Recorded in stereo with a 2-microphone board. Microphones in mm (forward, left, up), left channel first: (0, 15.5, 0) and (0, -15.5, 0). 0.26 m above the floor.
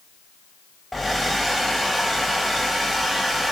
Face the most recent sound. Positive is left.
turn(degrees=5)  # may be behind; listen again after turning